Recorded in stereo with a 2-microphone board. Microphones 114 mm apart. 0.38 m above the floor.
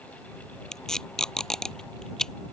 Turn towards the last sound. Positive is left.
turn(degrees=5)  # may be behind; listen again after turning